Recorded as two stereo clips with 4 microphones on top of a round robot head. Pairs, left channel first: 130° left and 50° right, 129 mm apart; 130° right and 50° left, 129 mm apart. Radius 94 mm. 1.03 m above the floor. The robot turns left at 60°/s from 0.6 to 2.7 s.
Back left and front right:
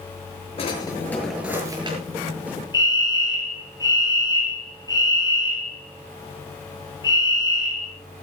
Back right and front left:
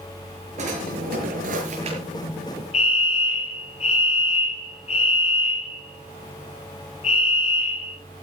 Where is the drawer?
85° left, 7 m; by 2.0 s straight ahead, 7 m.